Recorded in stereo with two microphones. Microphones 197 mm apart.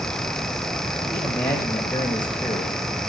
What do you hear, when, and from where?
1.1 s a man speaking: 20° left (ahead or behind), 2.0 m